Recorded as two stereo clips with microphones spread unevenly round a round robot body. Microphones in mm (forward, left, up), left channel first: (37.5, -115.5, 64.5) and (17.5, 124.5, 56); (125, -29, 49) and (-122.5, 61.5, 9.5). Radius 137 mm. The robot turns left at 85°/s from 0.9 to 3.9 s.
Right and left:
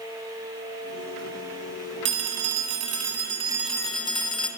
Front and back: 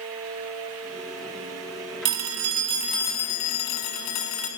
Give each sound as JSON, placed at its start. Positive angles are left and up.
{"t": 2.0, "sound": "a phone ringing", "azimuth_deg": 145, "distance_m": 3.0}